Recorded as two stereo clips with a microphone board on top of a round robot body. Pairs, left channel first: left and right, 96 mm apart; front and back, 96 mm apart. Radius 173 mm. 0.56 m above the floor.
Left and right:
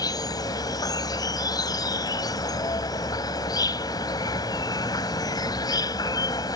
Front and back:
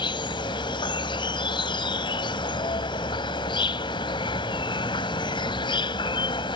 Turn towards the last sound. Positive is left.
turn(degrees=40)